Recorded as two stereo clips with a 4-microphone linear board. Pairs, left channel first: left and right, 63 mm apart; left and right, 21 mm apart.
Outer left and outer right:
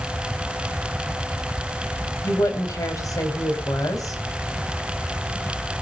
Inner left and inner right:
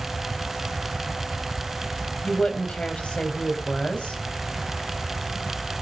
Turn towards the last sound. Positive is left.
turn(degrees=65)  # may be behind; listen again after turning